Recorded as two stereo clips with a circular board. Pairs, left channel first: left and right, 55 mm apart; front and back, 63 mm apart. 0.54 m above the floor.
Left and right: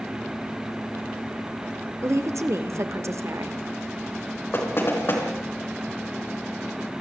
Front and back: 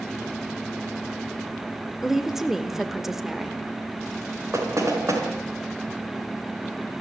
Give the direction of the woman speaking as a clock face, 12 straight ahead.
3 o'clock.